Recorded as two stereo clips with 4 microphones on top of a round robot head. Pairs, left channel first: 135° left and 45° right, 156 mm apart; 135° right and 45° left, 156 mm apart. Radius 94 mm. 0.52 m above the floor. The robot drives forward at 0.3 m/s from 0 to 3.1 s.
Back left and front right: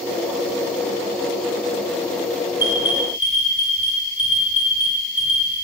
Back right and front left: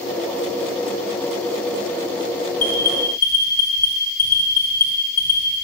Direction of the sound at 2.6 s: 120° right.